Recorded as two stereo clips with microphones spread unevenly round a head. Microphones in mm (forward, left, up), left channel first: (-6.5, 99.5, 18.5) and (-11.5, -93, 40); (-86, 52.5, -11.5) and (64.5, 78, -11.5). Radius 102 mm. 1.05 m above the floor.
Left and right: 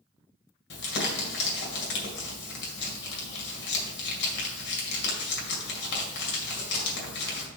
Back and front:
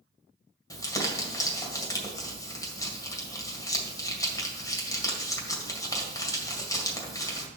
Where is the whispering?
No whispering in this recording.